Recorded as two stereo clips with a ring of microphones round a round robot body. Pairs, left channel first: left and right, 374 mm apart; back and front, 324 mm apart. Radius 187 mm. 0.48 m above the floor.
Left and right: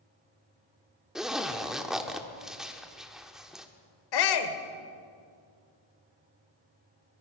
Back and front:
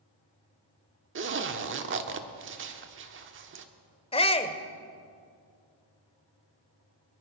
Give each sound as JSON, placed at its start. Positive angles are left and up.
{"t": 1.1, "sound": "a zipper", "azimuth_deg": -5, "distance_m": 1.3}
{"t": 4.1, "sound": "a shout", "azimuth_deg": 110, "distance_m": 1.6}